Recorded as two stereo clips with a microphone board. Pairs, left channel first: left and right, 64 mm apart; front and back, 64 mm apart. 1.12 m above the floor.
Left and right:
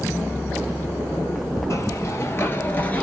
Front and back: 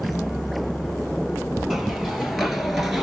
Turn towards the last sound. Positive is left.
turn(degrees=95)